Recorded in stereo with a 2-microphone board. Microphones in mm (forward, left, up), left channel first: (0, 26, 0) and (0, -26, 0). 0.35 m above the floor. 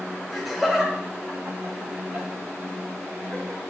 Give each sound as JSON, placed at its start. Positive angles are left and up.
{"t": 0.3, "sound": "laughter", "side_deg": 5, "distance_m": 1.3}